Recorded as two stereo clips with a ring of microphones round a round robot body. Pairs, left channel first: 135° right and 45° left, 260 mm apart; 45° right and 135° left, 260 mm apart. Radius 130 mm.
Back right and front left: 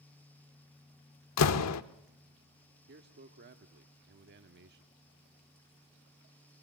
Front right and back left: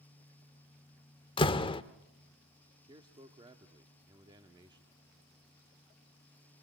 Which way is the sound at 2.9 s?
70° left.